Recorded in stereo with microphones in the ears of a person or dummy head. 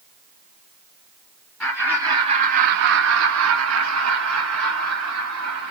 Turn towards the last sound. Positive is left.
turn(degrees=-75)  # may be behind; listen again after turning